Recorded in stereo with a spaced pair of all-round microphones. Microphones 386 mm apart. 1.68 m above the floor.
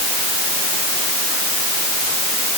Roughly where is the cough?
No cough in this recording.